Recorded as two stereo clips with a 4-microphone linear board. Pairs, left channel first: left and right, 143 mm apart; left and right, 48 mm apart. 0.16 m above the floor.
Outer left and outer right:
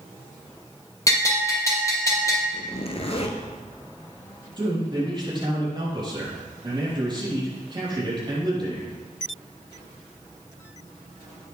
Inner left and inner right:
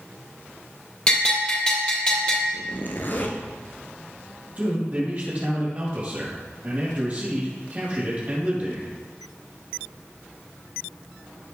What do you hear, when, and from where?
1.1 s a bell: 20° left (ahead or behind), 3.5 m
2.5 s a zipper: 45° left (ahead or behind), 1.7 m
4.6 s a man speaking: 35° right (ahead or behind), 5.5 m